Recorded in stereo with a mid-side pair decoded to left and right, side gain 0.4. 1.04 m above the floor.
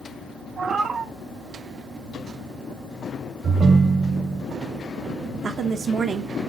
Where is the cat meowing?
55° right, 1.5 m.